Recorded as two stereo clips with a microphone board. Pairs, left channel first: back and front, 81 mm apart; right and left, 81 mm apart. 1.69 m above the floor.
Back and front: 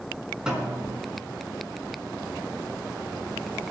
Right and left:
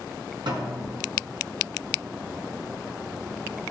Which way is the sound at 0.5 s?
85° left.